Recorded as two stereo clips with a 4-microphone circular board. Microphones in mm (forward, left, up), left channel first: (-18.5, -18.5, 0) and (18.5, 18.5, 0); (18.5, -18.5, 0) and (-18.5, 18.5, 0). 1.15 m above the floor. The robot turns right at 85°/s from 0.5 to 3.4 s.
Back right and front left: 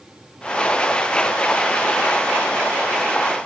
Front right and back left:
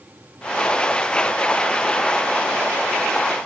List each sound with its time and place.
Only background noise.